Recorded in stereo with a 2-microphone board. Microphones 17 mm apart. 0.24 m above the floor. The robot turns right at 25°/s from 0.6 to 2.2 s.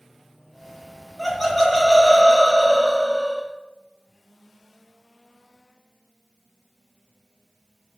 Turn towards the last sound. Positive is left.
turn(degrees=20)  # may be behind; listen again after turning